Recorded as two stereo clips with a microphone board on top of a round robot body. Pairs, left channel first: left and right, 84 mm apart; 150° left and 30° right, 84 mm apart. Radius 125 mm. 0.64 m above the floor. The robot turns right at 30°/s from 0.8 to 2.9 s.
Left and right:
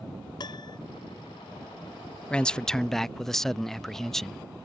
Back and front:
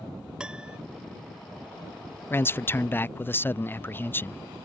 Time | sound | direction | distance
0.4 | a piano | 50° left | ?
2.3 | a man speaking | 150° left | ?